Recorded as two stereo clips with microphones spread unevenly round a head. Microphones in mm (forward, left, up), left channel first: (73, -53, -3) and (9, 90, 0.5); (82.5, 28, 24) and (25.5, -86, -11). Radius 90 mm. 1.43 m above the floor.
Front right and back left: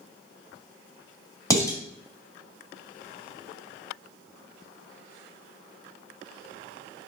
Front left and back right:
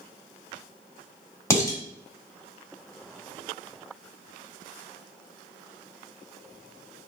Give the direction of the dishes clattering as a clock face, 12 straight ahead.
12 o'clock.